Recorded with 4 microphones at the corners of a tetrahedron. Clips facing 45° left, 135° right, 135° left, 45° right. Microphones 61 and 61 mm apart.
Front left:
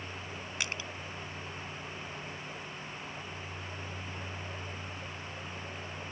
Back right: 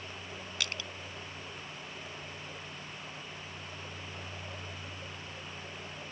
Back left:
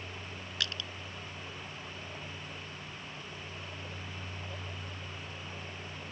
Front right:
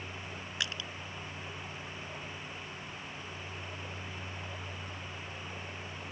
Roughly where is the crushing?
Ahead.